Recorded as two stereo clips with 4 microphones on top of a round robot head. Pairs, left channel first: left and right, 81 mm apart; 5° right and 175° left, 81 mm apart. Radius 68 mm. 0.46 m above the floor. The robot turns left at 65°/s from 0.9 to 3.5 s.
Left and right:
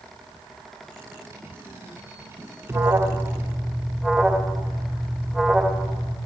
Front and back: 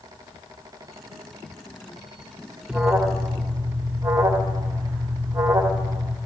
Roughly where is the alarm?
Behind right.